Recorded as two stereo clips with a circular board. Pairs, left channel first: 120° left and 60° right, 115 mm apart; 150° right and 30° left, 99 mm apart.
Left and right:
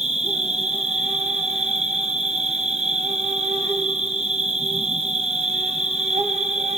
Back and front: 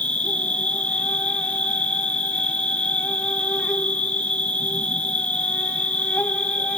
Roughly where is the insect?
Right.